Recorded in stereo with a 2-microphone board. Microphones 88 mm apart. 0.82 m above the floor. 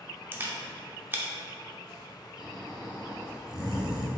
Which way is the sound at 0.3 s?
25° right (ahead or behind).